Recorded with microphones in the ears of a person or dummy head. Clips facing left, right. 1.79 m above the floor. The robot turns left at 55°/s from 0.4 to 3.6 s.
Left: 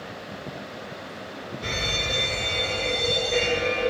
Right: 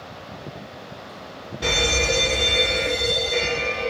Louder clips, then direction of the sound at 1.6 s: Right 9 dB; 85° right.